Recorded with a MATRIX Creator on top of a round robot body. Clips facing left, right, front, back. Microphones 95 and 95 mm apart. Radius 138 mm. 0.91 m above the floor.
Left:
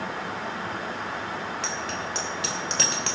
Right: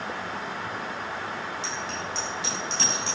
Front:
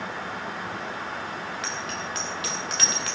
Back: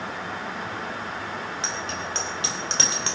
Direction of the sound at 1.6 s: 120° left.